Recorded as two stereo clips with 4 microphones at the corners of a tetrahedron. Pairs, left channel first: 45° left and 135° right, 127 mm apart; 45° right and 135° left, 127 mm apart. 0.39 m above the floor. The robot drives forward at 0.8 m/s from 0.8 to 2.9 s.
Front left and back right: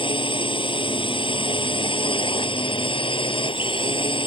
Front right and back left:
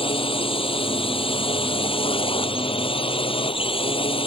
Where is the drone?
Straight ahead.